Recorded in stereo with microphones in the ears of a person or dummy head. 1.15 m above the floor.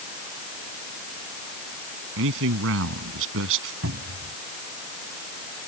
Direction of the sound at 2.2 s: 75° right (ahead or behind).